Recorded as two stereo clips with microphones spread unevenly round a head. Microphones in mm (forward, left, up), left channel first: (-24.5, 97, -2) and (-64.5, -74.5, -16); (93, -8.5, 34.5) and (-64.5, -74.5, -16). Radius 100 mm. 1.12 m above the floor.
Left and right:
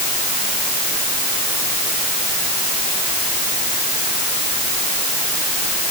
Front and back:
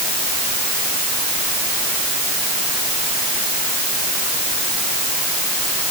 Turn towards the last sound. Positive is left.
No sound to turn to.